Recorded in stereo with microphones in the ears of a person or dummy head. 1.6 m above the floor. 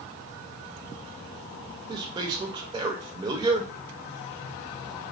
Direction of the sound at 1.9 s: 20° right (ahead or behind).